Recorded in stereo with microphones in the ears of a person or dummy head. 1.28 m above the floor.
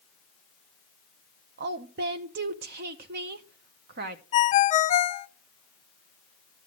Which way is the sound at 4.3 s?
35° left (ahead or behind).